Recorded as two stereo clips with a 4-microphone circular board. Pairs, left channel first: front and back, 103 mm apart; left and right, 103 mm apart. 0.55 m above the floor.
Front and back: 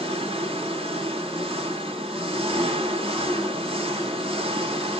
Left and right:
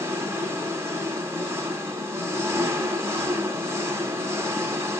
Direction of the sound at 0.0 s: 155° right.